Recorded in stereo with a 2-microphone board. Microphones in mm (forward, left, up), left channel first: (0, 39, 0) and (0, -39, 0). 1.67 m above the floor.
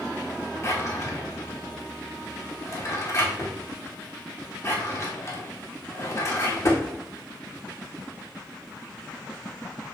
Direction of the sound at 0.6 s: 40° left (ahead or behind).